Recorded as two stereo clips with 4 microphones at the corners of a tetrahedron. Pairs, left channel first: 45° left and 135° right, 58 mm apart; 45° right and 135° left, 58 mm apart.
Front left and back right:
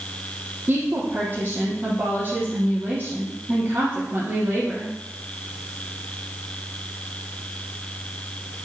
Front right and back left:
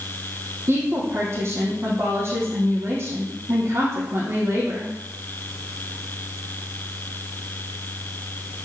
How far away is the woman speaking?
About 3 m.